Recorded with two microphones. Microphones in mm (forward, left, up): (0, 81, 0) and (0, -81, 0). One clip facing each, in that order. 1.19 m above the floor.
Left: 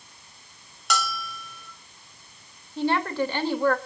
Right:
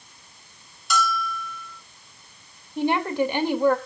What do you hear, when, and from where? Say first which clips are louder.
0.9 s a bell: right 4 dB; 75° left (ahead or behind), 2.0 m
2.8 s a woman speaking: right 2 dB; 15° right (ahead or behind), 2.0 m